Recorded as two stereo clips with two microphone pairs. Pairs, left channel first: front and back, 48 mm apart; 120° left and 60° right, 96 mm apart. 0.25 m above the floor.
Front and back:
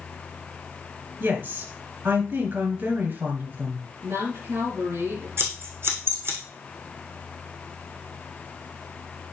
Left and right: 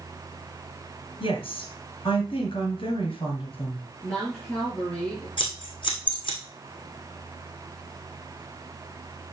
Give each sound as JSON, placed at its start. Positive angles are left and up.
{"t": 1.2, "sound": "a woman speaking", "azimuth_deg": 145, "distance_m": 3.0}
{"t": 4.0, "sound": "a woman speaking", "azimuth_deg": -170, "distance_m": 5.5}
{"t": 5.4, "sound": "scissors", "azimuth_deg": 155, "distance_m": 2.5}